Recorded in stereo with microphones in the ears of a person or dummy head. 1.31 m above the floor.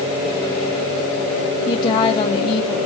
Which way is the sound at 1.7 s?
35° left (ahead or behind).